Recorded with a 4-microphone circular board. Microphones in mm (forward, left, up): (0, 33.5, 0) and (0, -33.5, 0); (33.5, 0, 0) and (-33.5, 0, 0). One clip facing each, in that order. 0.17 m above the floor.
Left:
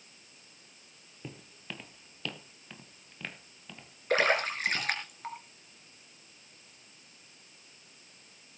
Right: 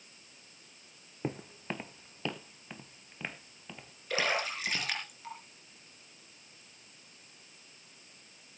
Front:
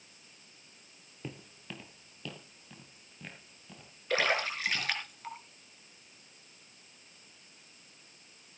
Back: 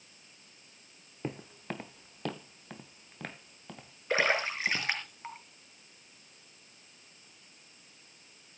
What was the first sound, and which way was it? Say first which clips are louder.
Footsteps: right 8 dB, back 6 dB; 130° right.